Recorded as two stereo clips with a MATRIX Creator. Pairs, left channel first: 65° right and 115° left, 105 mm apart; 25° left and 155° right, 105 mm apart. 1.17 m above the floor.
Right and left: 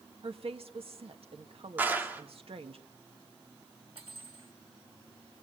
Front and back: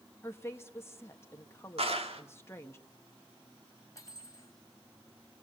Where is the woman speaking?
85° left, 1.9 m.